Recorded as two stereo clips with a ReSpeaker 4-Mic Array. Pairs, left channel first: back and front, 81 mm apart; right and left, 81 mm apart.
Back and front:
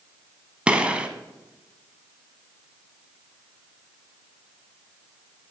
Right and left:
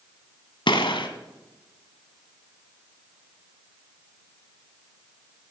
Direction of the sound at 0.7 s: 75° right.